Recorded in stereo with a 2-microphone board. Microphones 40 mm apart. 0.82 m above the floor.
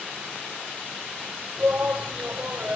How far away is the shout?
About 3 m.